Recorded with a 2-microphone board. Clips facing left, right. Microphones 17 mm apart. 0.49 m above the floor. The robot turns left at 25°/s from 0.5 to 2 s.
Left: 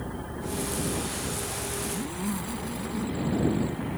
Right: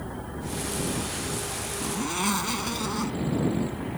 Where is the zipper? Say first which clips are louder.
Right 4 dB; 50° right (ahead or behind); by 3.2 s 55° right (ahead or behind).